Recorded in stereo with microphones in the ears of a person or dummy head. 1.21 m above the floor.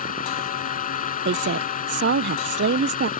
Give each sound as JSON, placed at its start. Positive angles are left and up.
{"t": 0.0, "sound": "a fan", "side_deg": 45}
{"t": 1.2, "sound": "a woman speaking", "side_deg": -50}